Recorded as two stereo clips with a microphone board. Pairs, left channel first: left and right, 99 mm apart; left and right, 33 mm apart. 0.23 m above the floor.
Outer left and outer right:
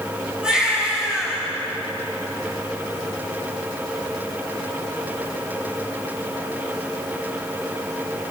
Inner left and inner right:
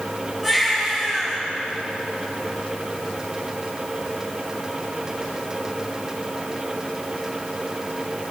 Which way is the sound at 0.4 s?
10° right (ahead or behind).